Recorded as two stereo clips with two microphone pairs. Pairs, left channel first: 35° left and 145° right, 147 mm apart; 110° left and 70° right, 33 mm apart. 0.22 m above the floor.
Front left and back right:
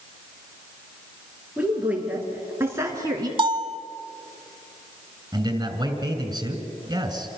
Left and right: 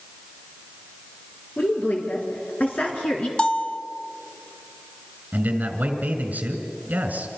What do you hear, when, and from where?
1.6 s a woman speaking: 135° left, 4 m; by 3.3 s 155° left, 2.5 m
3.4 s a bell: 165° left, 0.9 m
5.3 s a man speaking: 85° right, 2.5 m